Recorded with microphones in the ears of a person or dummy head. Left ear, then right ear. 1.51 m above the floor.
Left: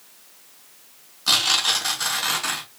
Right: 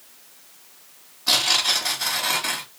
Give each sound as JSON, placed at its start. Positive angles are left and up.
{"t": 1.3, "sound": "tearing paper", "side_deg": 70, "distance_m": 2.5}